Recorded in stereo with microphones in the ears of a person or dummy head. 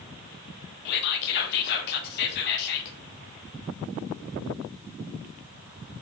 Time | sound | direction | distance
0.8 | whispering | 60° left (ahead or behind) | 0.5 m